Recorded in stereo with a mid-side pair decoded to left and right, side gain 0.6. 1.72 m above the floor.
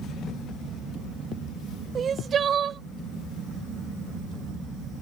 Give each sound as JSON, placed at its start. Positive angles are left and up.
{"t": 1.9, "sound": "crying", "azimuth_deg": -40}